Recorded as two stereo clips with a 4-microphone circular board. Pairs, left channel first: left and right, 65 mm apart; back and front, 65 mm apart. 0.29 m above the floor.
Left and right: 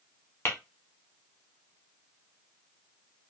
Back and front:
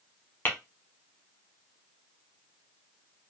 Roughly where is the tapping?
Behind left.